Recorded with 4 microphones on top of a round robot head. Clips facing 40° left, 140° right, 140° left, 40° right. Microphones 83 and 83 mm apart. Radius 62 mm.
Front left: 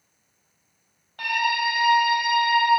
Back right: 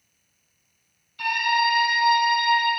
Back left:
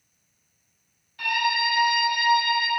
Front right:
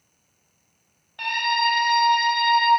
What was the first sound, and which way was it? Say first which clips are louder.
A scream: back right 2 dB, front right 2 dB; 5° left.